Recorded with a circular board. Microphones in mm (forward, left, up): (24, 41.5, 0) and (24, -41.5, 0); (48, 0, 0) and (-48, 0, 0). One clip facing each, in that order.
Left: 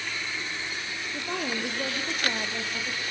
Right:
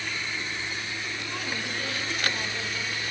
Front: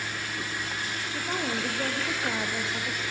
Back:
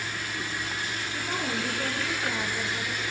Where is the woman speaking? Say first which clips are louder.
Left 6 dB, front 1 dB; 75° left, 2.5 m; by 3.0 s 45° left, 3 m.